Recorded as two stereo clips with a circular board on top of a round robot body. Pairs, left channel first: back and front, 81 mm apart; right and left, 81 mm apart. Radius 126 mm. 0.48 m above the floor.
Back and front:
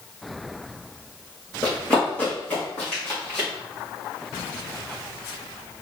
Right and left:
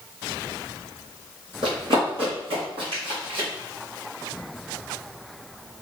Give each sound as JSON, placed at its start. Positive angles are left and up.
{"t": 1.6, "sound": "running footsteps", "azimuth_deg": 105, "distance_m": 0.5}